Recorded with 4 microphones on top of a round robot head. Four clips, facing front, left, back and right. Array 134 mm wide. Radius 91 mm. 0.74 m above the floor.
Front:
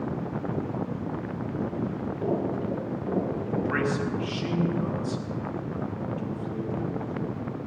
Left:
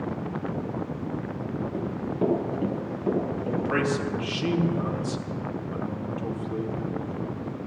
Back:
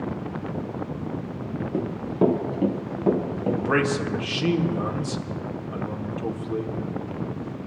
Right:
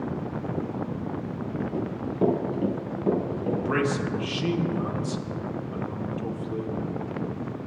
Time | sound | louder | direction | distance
1.7 | running footsteps | right 2 dB, back 6 dB | 175° right | 5 m
3.6 | a man speaking | left 1 dB, back 4 dB | 175° right | 2.5 m